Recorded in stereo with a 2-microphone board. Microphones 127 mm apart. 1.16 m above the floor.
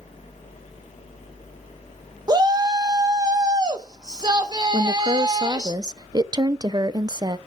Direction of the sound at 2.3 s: 30° right (ahead or behind).